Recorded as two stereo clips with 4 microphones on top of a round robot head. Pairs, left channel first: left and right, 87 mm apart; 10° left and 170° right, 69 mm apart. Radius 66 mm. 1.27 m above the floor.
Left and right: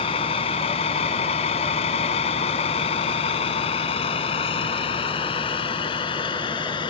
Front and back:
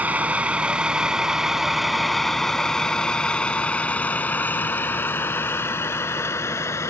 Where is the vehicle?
120° left; by 6.9 s 60° left.